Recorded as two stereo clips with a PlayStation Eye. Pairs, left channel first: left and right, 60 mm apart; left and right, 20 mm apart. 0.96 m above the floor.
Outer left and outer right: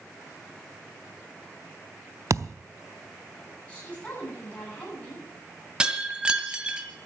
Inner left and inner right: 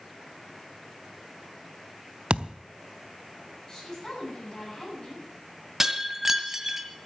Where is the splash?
I don't hear a splash.